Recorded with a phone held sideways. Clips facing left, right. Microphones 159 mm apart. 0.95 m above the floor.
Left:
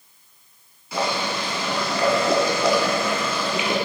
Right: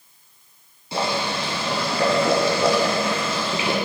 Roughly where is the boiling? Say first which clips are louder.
Right 1 dB; right.